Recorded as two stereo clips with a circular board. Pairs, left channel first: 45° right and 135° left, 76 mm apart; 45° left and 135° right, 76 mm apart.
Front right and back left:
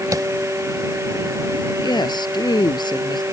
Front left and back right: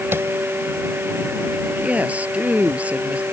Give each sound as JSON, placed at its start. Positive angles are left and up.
{"t": 0.1, "sound": "tapping", "azimuth_deg": 170}
{"t": 1.8, "sound": "a woman speaking", "azimuth_deg": -65}